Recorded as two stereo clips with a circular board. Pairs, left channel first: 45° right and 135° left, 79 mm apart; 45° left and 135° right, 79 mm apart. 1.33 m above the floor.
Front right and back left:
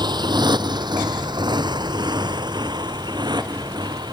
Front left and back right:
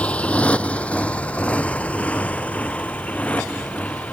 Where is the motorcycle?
120° left; by 4.2 s 115° left.